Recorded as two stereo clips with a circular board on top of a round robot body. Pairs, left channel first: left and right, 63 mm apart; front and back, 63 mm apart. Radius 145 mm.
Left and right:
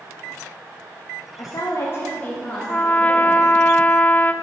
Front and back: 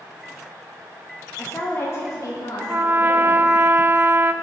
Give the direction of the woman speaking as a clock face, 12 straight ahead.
10 o'clock.